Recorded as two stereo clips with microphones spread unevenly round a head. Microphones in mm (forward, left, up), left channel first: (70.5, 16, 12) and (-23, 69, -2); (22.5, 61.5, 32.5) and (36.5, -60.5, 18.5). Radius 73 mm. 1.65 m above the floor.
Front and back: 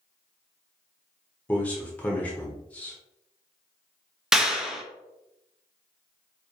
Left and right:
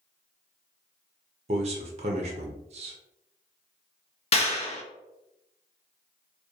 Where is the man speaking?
90° right, 0.6 m.